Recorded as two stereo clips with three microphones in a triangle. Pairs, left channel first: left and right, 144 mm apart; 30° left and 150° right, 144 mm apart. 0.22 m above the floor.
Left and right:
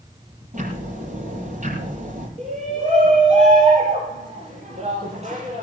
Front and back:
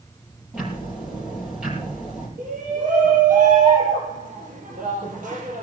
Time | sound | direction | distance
0.5 | ticking | 65° right | 6 m
2.4 | a shout | 130° right | 6 m